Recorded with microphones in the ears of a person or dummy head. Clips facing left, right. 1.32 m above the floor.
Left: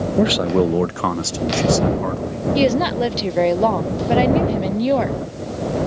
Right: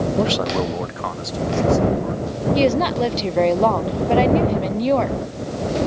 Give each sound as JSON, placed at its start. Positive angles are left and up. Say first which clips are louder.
{"t": 0.2, "sound": "a man speaking", "louder": "left 8 dB", "side_deg": 25}
{"t": 2.5, "sound": "a woman speaking", "louder": "left 1 dB", "side_deg": 0}